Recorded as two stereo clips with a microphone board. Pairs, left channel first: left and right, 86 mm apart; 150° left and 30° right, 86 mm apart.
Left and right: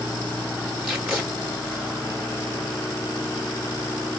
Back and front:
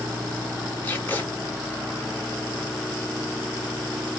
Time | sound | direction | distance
0.8 | tape being pulled | 165° right | 1.3 m